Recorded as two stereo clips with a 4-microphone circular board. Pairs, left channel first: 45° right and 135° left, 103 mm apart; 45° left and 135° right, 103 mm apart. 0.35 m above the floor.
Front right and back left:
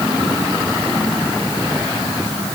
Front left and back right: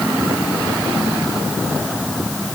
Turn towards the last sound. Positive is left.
No sound to turn to.